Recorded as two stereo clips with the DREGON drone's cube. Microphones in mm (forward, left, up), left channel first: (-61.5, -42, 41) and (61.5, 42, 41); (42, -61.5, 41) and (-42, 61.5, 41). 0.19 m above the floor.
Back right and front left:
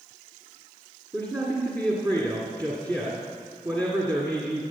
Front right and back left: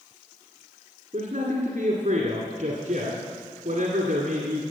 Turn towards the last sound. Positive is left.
turn(degrees=95)